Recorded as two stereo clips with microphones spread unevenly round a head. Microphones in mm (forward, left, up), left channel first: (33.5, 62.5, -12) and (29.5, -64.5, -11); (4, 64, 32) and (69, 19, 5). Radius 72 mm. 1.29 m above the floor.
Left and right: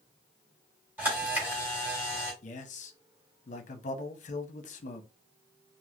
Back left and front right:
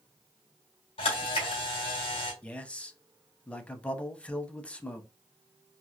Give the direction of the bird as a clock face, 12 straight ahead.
I don't hear a bird.